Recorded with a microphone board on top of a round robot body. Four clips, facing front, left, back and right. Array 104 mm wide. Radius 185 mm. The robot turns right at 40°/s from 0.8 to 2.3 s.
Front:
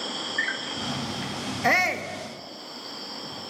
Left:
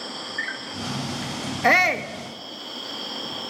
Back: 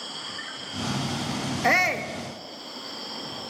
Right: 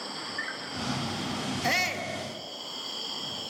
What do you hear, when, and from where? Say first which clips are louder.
0.0 s an insect: left 4 dB, front 8 dB; 30° left, 1.0 m; by 3.5 s 90° left, 1.0 m
1.6 s a shout: left 12 dB, even; 85° left, 1.7 m; by 2.1 s 105° left, 1.7 m